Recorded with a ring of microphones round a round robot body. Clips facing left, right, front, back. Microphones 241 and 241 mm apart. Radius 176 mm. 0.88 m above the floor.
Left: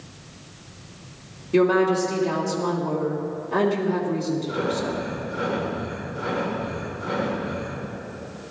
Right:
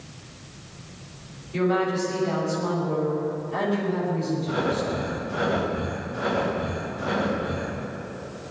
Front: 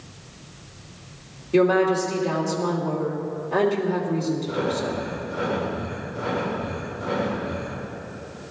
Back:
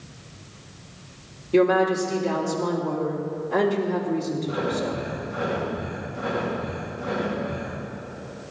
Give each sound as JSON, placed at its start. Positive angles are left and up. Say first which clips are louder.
{"t": 1.5, "sound": "a woman speaking", "louder": "left 5 dB, front 1 dB", "azimuth_deg": 105, "distance_m": 2.5}
{"t": 4.5, "sound": "breathing", "louder": "even, front 1 dB", "azimuth_deg": -125, "distance_m": 5.5}